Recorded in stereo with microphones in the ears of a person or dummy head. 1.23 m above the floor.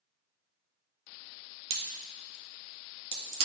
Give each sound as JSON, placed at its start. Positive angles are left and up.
{"t": 1.7, "sound": "a crack", "side_deg": -35, "distance_m": 2.0}